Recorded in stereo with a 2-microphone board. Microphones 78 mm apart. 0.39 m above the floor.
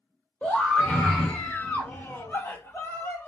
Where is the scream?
5° left (ahead or behind), 1.1 m; by 3.3 s 25° left (ahead or behind), 1.4 m.